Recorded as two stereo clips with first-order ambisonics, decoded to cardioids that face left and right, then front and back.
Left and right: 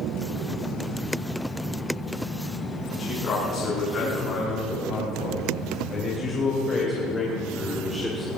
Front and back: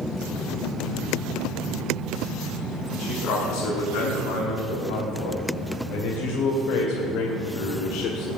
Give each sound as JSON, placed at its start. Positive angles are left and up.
{"t": 3.0, "sound": "a man speaking", "azimuth_deg": 35, "distance_m": 5.5}